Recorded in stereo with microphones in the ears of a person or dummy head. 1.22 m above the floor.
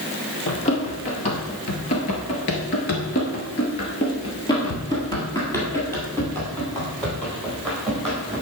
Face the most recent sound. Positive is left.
turn(degrees=0)  # may be behind; listen again after turning